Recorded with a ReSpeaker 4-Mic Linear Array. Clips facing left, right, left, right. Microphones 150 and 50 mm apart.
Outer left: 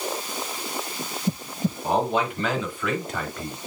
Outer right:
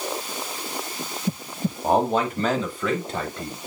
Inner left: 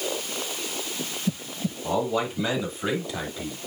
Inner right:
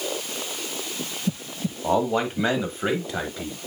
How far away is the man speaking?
About 1.4 m.